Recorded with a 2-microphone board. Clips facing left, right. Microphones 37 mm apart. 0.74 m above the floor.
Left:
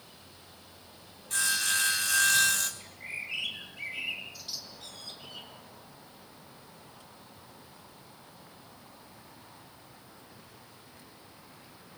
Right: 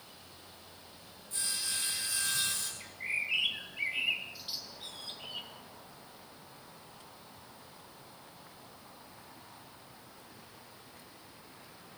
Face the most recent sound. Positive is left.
turn(degrees=-25)  # may be behind; listen again after turning